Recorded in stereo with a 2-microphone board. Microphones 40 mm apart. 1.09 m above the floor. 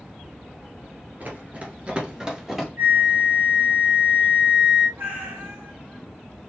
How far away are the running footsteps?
About 1.3 m.